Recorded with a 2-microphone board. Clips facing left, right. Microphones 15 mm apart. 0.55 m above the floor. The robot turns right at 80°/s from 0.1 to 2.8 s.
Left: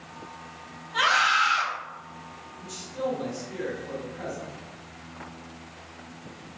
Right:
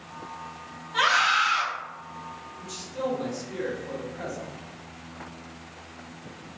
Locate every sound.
0.9 s a scream: 5° right (ahead or behind), 0.7 m; by 1.6 s 15° left (ahead or behind), 0.7 m
2.6 s a man speaking: 25° right (ahead or behind), 0.8 m; by 4.5 s 20° right (ahead or behind), 0.8 m